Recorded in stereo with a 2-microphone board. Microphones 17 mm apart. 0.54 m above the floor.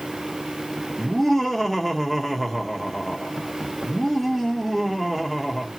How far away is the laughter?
About 1.1 m.